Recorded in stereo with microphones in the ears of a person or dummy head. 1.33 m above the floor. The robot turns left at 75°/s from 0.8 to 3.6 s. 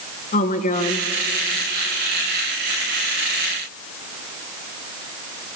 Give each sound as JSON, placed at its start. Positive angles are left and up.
{"t": 0.3, "sound": "a woman speaking", "side_deg": 40, "distance_m": 1.1}